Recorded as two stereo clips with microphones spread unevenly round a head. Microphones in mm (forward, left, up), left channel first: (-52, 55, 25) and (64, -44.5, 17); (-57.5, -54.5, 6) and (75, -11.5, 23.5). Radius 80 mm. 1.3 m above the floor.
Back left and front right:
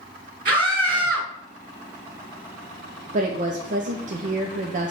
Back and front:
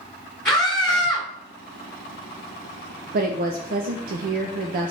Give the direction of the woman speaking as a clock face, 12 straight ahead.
12 o'clock.